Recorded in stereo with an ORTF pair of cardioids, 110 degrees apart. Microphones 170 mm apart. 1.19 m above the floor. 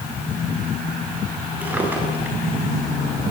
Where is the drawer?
10° right, 9.5 m.